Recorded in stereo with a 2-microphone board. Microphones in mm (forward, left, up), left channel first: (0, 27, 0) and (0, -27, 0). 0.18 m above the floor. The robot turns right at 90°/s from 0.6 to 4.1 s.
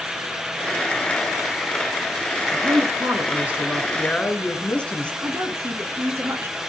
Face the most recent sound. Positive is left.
turn(degrees=-55)  # may be behind; listen again after turning